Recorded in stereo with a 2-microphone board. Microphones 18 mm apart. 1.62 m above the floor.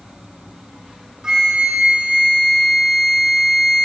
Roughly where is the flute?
Right.